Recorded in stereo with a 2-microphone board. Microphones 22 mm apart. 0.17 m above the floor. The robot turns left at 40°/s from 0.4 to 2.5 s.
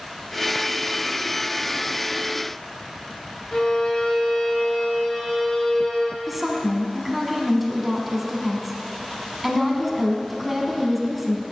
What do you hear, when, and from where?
3.5 s a violin: 30° left (ahead or behind), 0.9 m
6.3 s a woman speaking: 5° right (ahead or behind), 1.0 m